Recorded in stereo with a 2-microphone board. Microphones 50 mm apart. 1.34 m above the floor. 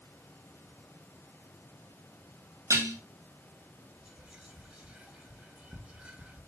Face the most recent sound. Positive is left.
turn(degrees=-20)  # may be behind; listen again after turning